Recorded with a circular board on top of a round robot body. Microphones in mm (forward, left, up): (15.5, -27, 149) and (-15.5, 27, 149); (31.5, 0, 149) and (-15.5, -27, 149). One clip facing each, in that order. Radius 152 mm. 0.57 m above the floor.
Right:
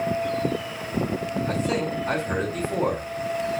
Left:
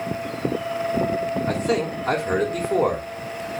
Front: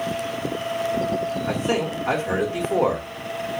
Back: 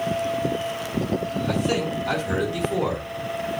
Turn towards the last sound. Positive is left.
turn(degrees=85)